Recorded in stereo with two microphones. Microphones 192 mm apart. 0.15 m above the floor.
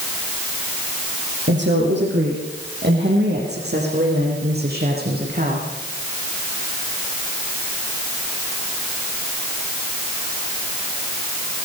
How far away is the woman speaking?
About 6 m.